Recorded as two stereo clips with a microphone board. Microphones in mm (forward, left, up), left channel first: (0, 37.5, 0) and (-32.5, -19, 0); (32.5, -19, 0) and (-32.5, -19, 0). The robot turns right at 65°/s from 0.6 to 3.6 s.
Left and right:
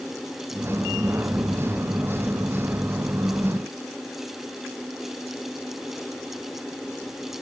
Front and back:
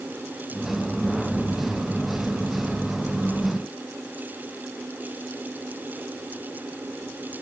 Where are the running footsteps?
I don't hear running footsteps.